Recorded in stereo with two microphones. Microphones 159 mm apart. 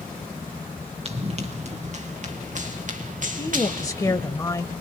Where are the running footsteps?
40° right (ahead or behind), 3 m; by 4.3 s 60° right (ahead or behind), 4 m.